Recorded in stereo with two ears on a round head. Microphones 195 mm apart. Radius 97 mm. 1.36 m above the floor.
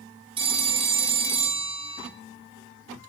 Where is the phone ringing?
25° right (ahead or behind), 1.5 m.